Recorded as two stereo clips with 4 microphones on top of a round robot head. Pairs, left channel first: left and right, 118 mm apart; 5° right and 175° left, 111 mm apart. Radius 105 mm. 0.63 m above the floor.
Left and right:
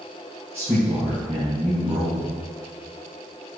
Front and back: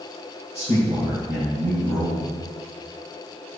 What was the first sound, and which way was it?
A man speaking, 160° right.